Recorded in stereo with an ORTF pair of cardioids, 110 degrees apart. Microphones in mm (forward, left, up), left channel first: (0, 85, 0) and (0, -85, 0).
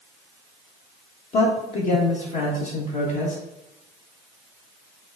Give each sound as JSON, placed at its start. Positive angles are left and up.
{"t": 1.3, "sound": "a man speaking", "azimuth_deg": 50, "distance_m": 1.6}